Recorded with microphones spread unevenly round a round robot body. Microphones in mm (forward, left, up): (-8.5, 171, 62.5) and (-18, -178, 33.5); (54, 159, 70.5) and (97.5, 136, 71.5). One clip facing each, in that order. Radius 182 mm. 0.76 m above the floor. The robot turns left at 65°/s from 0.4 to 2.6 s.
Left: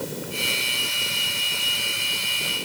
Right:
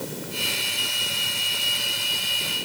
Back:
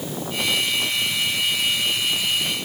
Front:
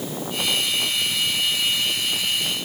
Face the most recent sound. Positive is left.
No sound to turn to.